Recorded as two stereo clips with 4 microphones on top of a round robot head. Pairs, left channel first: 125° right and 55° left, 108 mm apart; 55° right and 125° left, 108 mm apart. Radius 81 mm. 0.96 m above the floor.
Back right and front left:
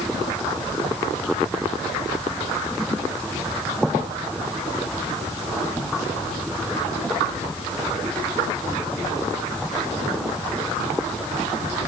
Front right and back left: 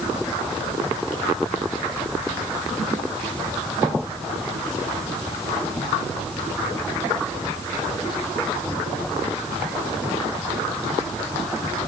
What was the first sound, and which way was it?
Only background noise.